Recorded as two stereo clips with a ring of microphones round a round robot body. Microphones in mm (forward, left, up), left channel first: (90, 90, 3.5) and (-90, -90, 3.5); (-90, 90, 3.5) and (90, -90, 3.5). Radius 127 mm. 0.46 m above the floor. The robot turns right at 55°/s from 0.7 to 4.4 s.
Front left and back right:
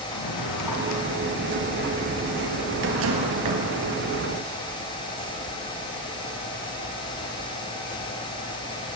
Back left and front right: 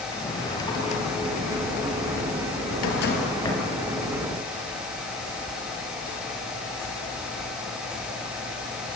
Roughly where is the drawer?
Ahead left.